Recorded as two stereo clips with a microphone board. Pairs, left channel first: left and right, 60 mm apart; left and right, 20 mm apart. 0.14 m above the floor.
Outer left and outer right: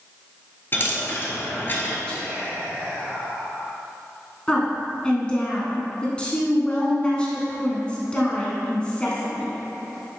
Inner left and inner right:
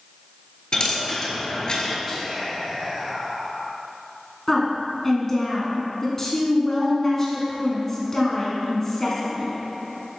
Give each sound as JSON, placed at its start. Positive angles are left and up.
{"t": 0.7, "sound": "a dropped coin", "side_deg": 35, "distance_m": 1.1}
{"t": 2.1, "sound": "whispering", "side_deg": 15, "distance_m": 2.5}
{"t": 4.5, "sound": "a woman speaking", "side_deg": 15, "distance_m": 1.1}